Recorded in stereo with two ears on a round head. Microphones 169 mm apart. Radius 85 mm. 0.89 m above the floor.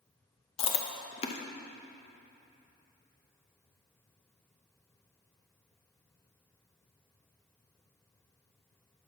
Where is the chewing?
30° left (ahead or behind), 0.5 m.